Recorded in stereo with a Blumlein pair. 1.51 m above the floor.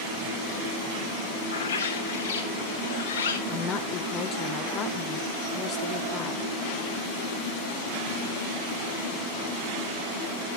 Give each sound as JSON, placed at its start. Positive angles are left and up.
{"t": 1.5, "sound": "a bird", "azimuth_deg": 65, "distance_m": 1.5}
{"t": 3.5, "sound": "a woman speaking", "azimuth_deg": 30, "distance_m": 0.9}